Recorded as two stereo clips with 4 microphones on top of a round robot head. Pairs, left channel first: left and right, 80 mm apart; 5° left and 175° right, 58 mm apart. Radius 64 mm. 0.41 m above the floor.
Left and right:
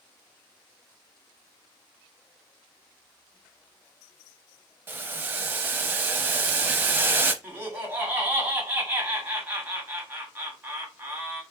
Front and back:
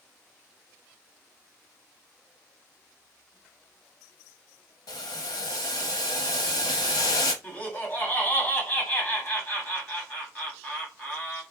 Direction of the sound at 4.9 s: 25° right.